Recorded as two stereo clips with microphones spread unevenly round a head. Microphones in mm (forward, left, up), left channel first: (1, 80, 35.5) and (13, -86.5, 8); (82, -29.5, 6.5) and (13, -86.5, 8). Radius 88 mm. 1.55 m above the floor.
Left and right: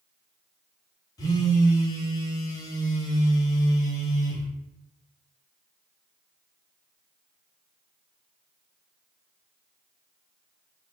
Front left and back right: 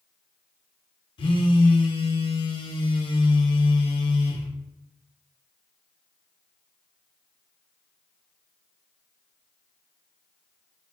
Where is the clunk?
No clunk in this recording.